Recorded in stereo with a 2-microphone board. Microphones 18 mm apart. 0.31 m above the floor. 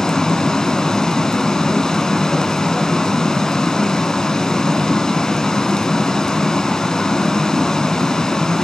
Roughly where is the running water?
Left.